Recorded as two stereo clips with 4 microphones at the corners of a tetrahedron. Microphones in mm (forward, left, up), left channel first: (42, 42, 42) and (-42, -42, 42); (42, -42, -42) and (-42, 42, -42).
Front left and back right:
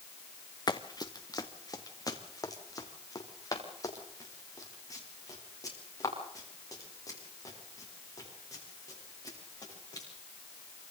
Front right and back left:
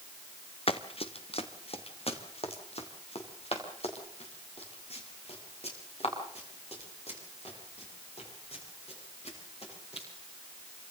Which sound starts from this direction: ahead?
Running footsteps, at 0.7 s.